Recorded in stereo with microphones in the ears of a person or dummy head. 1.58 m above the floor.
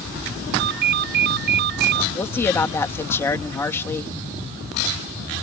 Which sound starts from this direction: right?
A ringtone, at 0.6 s.